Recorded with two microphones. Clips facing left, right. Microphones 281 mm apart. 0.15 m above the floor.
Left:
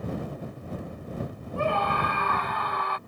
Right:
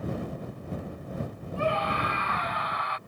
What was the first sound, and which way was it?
A scream, 55° left (ahead or behind).